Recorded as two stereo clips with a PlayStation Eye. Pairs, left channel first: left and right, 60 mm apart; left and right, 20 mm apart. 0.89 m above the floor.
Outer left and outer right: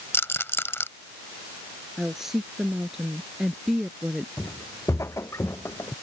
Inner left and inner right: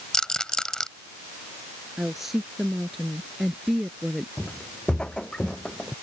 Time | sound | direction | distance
0.1 | a rattle | 40° left (ahead or behind) | ?
2.0 | a woman speaking | 5° right (ahead or behind) | ?
4.4 | footsteps | 60° left (ahead or behind) | ?